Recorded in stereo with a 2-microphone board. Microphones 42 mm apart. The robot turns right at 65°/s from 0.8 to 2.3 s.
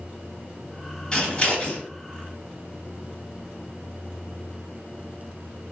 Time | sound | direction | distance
1.1 | scissors | 20° left (ahead or behind) | 0.9 m